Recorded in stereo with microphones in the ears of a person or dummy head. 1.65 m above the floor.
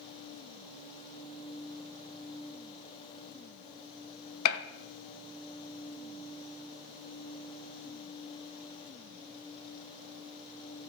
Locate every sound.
4.5 s a gunshot: 85° left, 0.7 m